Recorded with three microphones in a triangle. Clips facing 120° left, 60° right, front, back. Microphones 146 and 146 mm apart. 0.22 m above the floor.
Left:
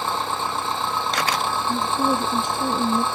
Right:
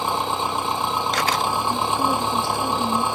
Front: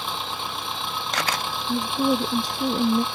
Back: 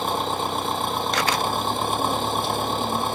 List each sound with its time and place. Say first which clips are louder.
0.0 s an engine running: right 2 dB, back 7 dB; 135° right
1.7 s a woman speaking: left 3 dB, front 2 dB; 50° left